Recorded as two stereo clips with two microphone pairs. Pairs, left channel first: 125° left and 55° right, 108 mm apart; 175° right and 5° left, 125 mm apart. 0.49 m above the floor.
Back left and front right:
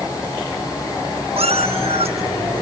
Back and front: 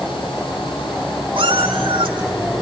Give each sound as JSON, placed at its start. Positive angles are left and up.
{"t": 1.4, "sound": "a cat meowing", "azimuth_deg": -40, "distance_m": 7.0}